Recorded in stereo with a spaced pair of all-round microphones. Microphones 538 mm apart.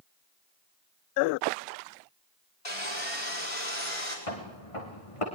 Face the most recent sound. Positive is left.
turn(degrees=70)  # may be behind; listen again after turning